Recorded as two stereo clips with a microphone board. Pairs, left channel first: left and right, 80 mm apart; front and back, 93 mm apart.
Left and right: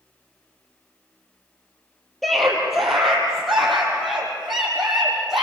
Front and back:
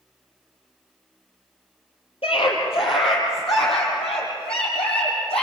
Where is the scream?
Straight ahead, 5 m; by 5.4 s 5° right, 9 m.